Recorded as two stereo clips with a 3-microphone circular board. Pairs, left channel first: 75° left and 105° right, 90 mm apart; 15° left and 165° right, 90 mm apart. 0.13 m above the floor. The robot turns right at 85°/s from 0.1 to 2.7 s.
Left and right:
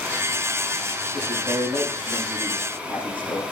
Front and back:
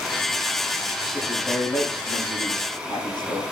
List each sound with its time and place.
1.1 s a man speaking: 80° right, 9 m; by 3.4 s 50° left, 9 m